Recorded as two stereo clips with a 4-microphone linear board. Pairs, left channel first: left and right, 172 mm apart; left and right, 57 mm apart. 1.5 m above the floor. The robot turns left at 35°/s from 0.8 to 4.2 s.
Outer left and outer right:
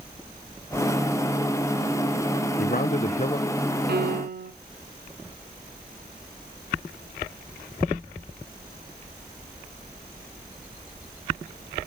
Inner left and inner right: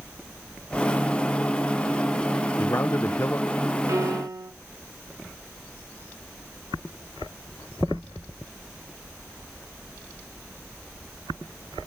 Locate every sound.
2.6 s a man speaking: 65° left, 0.7 m; by 3.5 s 35° left, 0.7 m
3.9 s a piano: 75° right (ahead or behind), 0.7 m; by 4.5 s 65° right (ahead or behind), 0.7 m